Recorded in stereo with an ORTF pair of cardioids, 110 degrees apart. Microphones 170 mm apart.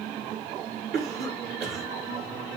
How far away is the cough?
About 2.5 m.